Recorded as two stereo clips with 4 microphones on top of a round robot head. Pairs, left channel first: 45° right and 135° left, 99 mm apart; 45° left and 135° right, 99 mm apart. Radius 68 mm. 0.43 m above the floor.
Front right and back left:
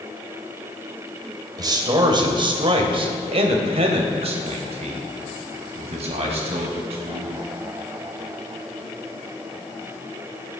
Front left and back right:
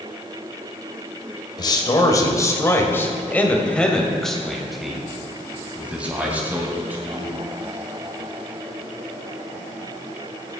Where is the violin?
I don't hear a violin.